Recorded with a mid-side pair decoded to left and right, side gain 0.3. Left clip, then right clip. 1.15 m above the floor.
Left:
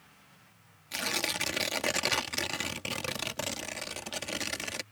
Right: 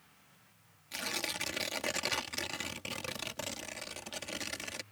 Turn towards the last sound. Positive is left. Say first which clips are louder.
# left 5 dB
turn(degrees=55)